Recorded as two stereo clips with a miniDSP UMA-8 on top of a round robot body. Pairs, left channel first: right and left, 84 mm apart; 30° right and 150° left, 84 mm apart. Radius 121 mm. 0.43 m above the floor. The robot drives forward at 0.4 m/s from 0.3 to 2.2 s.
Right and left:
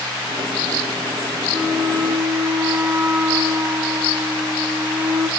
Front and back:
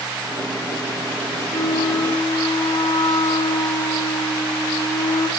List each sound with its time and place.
1.5 s a flute: 20° left, 1.2 m; by 5.3 s 25° left, 1.0 m